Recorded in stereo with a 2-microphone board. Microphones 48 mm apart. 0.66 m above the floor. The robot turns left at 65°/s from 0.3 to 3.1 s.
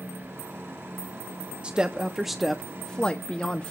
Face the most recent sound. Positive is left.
turn(degrees=140)